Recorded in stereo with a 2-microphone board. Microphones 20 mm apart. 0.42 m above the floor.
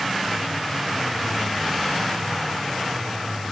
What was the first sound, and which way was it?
Only background noise.